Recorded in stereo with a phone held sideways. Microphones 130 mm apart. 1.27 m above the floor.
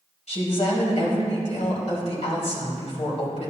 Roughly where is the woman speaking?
Left.